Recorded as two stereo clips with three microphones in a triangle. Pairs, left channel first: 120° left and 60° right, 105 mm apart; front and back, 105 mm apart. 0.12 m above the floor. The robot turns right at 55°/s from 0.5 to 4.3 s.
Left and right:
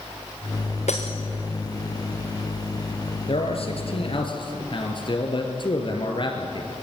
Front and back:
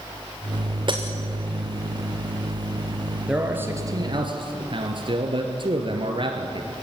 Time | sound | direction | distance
0.9 | breaking glass | 135° left | 3 m
3.3 | a man speaking | 95° left | 3 m